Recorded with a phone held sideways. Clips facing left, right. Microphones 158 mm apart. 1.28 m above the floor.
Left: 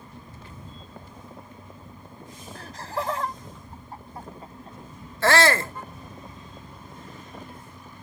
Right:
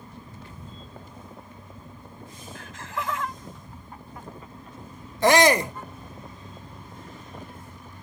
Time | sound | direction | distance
2.5 | laughter | 35° left (ahead or behind) | ?
5.2 | a shout | 15° right (ahead or behind) | ?